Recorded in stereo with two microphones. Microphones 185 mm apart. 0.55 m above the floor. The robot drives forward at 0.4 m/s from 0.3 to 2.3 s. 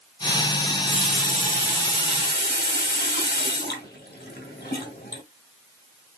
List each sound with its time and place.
0.6 s a running tap: 40° left (ahead or behind), 1.9 m; by 5.2 s 60° left (ahead or behind), 1.5 m